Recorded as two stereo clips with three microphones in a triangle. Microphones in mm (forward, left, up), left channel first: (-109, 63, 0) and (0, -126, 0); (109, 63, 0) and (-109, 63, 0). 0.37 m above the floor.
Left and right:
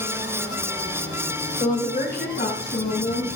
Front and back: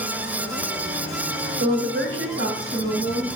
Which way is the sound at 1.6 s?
175° left.